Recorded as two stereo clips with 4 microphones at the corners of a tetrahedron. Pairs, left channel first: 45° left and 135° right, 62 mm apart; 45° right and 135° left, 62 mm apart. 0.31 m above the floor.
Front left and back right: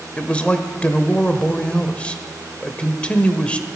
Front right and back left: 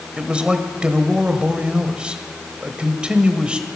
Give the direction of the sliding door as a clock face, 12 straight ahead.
No sliding door in this recording.